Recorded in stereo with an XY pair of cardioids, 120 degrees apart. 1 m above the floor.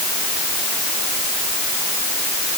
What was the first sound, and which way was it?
Only background noise.